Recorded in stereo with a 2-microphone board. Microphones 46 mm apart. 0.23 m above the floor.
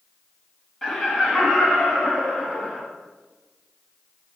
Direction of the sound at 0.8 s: 5° left (ahead or behind).